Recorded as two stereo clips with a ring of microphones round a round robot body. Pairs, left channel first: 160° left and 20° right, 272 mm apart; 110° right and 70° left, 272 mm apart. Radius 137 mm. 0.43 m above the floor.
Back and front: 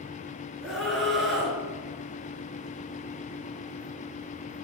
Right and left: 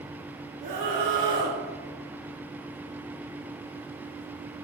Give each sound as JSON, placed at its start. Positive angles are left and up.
{"t": 0.6, "sound": "a scream", "azimuth_deg": 70, "distance_m": 6.0}